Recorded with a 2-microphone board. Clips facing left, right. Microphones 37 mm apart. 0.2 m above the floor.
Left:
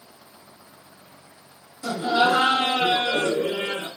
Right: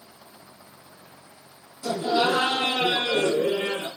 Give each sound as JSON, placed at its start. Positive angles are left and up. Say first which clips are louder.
{"t": 1.8, "sound": "laughter", "louder": "left 2 dB", "side_deg": 20, "distance_m": 1.4}